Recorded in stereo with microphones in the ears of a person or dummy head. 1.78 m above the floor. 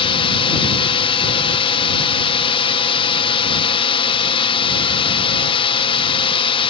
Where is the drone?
30° left (ahead or behind).